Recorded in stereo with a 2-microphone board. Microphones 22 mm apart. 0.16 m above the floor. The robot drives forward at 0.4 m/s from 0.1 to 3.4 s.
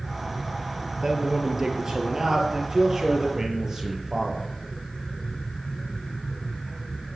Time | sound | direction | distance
1.0 | a man speaking | 25° right (ahead or behind) | 4 m